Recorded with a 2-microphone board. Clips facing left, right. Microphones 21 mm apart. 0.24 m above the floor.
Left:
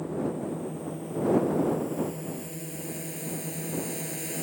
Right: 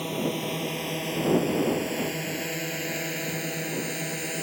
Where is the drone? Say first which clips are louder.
Right 2 dB; 75° right (ahead or behind); by 4.4 s 20° right (ahead or behind).